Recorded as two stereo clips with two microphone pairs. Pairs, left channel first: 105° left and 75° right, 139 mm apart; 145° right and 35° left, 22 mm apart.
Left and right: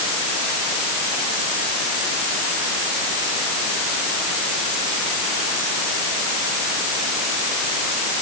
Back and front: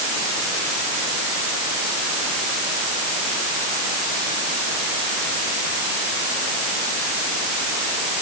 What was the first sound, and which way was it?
Only background noise.